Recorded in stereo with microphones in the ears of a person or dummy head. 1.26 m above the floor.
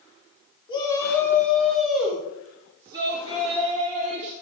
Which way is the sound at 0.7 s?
25° left (ahead or behind).